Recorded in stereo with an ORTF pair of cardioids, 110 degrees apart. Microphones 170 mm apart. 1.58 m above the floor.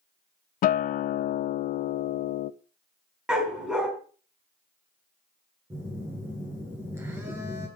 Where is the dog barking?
5° right, 4 m.